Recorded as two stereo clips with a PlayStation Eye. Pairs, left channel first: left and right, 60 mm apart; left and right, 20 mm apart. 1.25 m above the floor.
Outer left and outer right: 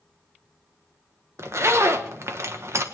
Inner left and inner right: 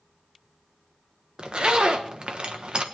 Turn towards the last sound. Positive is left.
turn(degrees=-55)  # may be behind; listen again after turning